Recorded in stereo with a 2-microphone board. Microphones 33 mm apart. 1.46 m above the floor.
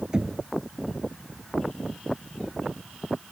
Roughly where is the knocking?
Right.